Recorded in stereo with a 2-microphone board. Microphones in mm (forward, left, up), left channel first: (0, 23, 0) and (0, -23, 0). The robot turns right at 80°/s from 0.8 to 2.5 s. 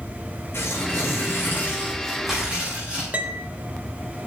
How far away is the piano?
About 1.1 m.